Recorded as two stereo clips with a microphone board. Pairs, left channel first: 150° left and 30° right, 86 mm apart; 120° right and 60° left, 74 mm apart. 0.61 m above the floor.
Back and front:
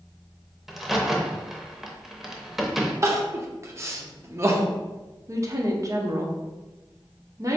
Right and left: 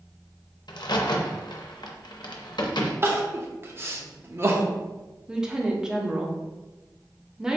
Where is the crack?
120° right, 0.6 m.